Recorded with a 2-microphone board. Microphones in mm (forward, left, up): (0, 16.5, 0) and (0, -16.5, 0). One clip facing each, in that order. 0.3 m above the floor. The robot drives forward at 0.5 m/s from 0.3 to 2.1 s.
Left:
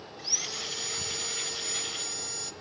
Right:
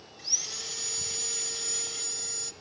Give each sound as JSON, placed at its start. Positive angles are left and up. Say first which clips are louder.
{"t": 0.2, "sound": "sawing", "louder": "left 2 dB", "side_deg": 10, "distance_m": 0.6}